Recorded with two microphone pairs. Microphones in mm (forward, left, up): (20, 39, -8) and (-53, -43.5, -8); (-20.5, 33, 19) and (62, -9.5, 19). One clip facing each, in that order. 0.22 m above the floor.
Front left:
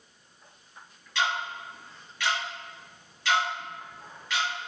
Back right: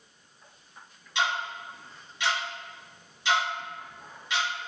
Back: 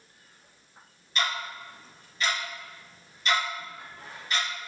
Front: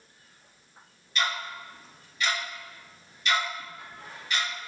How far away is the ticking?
About 1.5 m.